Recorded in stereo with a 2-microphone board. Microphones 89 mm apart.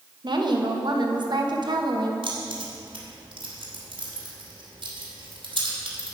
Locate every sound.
0.2 s a woman speaking: 60° right (ahead or behind), 1.1 m
2.2 s keys jangling: 80° right, 2.5 m